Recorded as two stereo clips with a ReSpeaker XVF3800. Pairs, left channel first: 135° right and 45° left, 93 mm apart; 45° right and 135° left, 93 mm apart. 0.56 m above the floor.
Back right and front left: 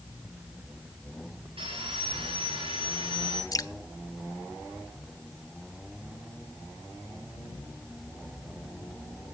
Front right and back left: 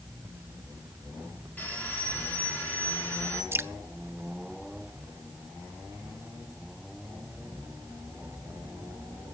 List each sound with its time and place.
1.6 s sawing: 25° left, 7.5 m
3.5 s dripping: 170° right, 0.7 m